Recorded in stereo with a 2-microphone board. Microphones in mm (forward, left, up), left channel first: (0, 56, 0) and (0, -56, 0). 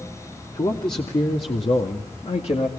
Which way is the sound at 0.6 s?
50° left (ahead or behind).